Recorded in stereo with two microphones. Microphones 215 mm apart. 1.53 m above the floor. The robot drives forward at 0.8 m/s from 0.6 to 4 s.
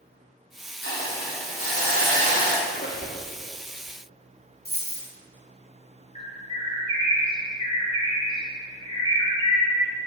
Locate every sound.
0.8 s a hiss: 80° left, 2.5 m; by 2.6 s 60° left (ahead or behind), 3 m
2.7 s a squeak: 55° left (ahead or behind), 0.8 m; by 3.2 s 35° left (ahead or behind), 1.0 m
4.7 s a dropped coin: 45° left (ahead or behind), 1.5 m
6.2 s a bird: 20° left (ahead or behind), 1.0 m